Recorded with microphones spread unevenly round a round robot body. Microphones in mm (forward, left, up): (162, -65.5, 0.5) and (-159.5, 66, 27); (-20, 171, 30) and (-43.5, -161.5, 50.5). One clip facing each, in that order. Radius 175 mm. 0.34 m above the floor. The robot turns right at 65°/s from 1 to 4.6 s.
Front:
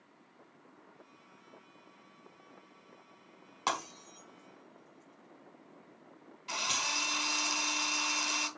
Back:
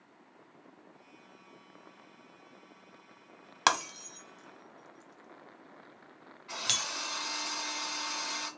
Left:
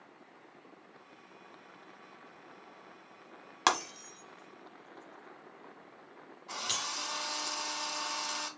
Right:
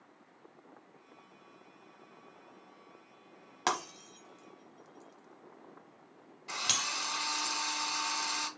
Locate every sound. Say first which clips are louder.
3.7 s breaking glass: back 4 dB, left 2 dB; 150° left, 0.9 m; by 6.9 s 150° right, 0.9 m
6.5 s a drill: front 1 dB, right 1 dB; 35° right, 2 m